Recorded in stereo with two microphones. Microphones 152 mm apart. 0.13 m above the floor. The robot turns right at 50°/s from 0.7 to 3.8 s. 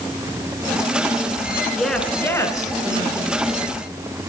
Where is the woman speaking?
Straight ahead, 1.7 m; by 3.6 s 95° left, 1.7 m.